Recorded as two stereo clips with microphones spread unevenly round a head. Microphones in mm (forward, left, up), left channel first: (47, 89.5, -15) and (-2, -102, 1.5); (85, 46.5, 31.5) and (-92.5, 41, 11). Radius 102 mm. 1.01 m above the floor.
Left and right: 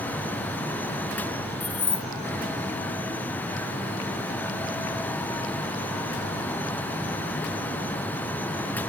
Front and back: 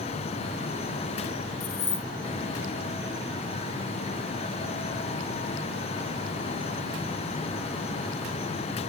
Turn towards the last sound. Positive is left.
turn(degrees=-5)